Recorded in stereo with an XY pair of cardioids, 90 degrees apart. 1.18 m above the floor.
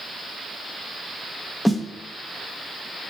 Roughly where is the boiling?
I don't hear boiling.